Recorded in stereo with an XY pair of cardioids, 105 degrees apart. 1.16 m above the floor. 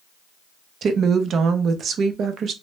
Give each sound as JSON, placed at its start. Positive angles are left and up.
{"t": 0.8, "sound": "a woman speaking", "azimuth_deg": -60, "distance_m": 0.6}